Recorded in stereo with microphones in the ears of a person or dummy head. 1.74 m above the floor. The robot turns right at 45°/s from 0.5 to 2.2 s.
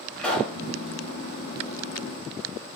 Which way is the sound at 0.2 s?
10° left (ahead or behind).